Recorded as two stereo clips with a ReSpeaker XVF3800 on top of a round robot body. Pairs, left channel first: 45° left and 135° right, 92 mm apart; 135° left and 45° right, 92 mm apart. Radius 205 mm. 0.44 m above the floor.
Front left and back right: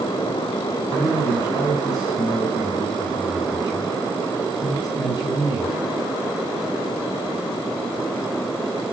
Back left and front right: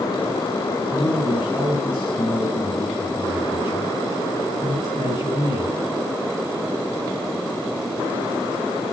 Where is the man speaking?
105° left, 6.5 m.